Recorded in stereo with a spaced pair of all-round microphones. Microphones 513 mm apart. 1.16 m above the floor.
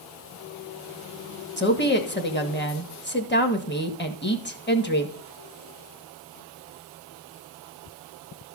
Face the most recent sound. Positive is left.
turn(degrees=20)  # may be behind; listen again after turning